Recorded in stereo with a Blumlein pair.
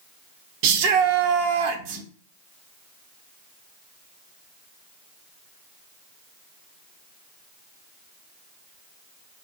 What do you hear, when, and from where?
0.6 s a shout: 45° right, 0.8 m